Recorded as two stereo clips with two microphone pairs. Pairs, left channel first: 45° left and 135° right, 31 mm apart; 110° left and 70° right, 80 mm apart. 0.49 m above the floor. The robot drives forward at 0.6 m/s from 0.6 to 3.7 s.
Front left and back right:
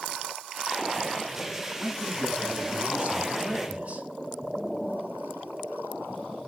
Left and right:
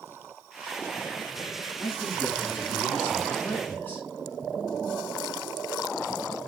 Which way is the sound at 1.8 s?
Straight behind.